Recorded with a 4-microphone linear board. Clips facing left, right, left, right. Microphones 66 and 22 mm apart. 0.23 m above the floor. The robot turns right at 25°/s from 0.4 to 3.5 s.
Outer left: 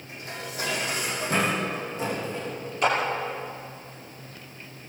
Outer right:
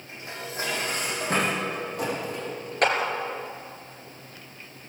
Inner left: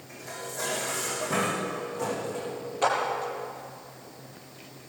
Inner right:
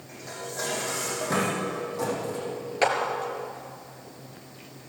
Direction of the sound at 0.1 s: 25° right (ahead or behind).